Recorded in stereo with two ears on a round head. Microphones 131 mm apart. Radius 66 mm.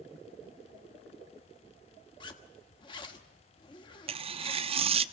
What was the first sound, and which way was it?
A zipper, 30° left (ahead or behind).